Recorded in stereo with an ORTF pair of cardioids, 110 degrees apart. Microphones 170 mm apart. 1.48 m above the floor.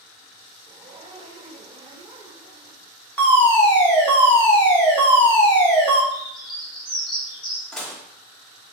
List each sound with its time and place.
0.7 s a zipper: 25° right, 1.0 m
3.2 s a fire alarm: 10° left, 1.8 m
6.1 s a bird: 30° left, 2.0 m
7.7 s dishes clattering: 5° left, 1.4 m